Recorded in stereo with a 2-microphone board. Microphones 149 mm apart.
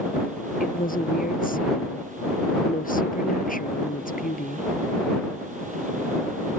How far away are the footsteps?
I don't hear footsteps.